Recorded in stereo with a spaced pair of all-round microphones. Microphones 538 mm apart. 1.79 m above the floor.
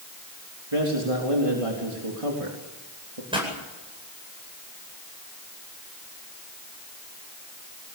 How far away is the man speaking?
About 4 m.